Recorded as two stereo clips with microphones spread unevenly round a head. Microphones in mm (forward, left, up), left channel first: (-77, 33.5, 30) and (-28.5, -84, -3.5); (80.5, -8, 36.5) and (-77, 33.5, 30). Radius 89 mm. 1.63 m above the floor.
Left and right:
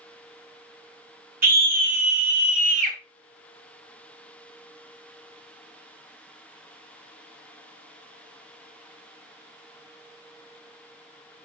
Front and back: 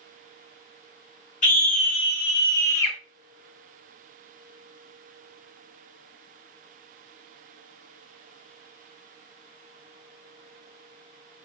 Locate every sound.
1.4 s a scream: 60° right, 2 m; by 3.0 s 90° right, 2.5 m